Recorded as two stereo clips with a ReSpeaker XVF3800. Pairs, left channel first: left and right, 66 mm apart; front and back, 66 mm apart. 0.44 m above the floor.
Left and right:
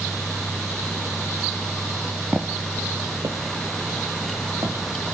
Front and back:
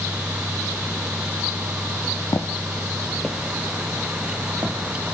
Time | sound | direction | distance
2.3 | footsteps | 20° right | 0.7 m